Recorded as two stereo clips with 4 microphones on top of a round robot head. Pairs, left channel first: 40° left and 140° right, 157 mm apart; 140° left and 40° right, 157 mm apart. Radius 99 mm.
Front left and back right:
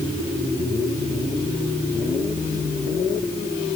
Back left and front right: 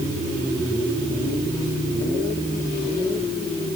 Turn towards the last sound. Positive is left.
No sound to turn to.